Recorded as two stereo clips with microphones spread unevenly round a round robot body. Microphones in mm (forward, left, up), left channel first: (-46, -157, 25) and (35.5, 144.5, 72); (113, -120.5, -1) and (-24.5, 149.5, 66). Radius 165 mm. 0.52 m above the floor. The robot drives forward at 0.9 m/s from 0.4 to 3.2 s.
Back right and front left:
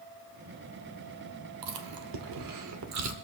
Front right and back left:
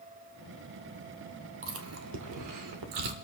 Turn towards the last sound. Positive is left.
turn(degrees=120)